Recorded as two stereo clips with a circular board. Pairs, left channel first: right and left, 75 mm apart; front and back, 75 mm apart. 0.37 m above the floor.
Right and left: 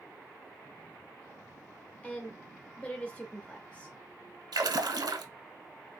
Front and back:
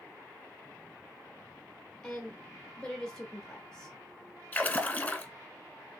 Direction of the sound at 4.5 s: 70° left.